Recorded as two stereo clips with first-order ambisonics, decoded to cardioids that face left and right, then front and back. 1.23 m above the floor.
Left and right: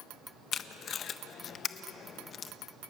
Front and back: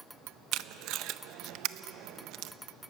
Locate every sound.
0.5 s tape being pulled: 150° left, 0.6 m